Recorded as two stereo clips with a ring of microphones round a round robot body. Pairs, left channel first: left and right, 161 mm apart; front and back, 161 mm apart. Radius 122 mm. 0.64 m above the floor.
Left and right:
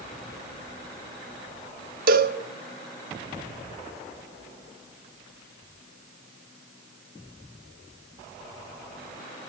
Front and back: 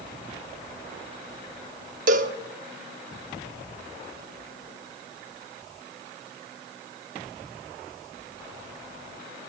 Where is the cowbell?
130° right, 0.7 m.